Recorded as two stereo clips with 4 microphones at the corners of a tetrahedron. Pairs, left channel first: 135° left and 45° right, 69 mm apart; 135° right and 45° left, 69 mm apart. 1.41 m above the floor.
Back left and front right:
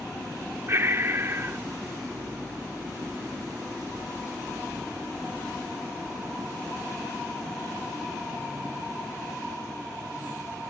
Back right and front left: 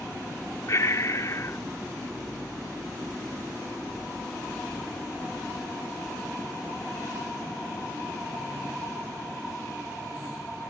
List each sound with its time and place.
0.7 s breathing: 95° right